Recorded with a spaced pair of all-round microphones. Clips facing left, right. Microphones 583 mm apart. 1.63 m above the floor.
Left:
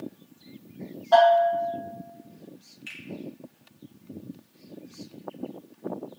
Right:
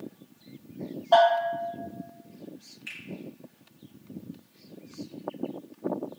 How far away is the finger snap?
About 1.9 m.